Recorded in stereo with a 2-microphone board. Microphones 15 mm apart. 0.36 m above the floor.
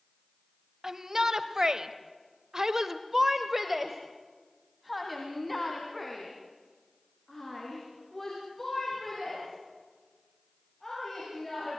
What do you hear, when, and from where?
0.8 s a shout: 40° right (ahead or behind), 2.0 m; by 11.8 s 15° left (ahead or behind), 8.5 m